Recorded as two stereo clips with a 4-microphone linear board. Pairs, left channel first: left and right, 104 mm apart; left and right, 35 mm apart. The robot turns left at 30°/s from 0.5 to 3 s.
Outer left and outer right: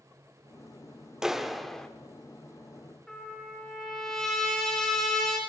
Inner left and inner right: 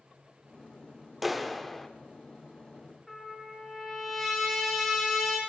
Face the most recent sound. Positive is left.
turn(degrees=5)  # may be behind; listen again after turning